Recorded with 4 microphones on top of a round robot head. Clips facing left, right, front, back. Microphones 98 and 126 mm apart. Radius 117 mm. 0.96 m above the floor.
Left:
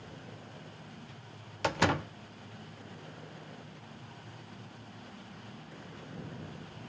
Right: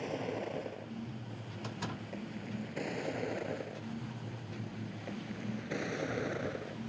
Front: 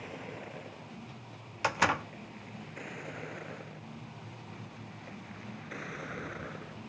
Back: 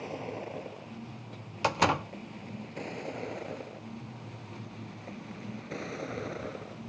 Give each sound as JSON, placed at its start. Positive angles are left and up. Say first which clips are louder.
{"t": 0.0, "sound": "a vehicle", "louder": "right 12 dB, back 6 dB", "azimuth_deg": -115}
{"t": 1.6, "sound": "a door slam", "louder": "left 13 dB, back 3 dB", "azimuth_deg": 115}